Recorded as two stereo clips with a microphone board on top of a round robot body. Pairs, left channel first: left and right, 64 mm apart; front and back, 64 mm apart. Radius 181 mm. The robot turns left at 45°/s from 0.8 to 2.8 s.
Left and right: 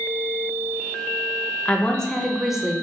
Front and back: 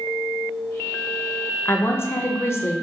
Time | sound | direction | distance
1.6 | a woman speaking | 30° left | 0.6 m